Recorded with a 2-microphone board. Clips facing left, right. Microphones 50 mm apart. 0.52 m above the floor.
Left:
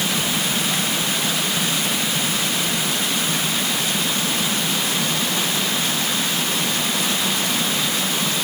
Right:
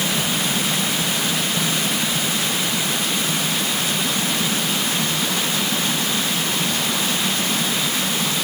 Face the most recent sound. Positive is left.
No sound to turn to.